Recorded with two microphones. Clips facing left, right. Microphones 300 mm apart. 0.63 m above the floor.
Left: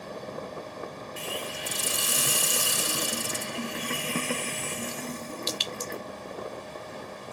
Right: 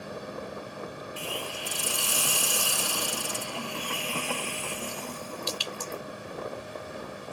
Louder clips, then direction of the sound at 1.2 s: Left 1 dB; 25° left (ahead or behind).